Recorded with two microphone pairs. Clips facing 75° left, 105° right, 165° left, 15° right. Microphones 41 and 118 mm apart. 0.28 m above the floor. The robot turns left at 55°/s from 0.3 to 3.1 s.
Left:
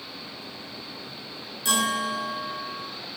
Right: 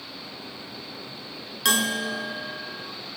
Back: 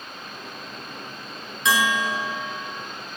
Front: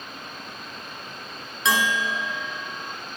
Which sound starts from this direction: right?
A bell, at 1.6 s.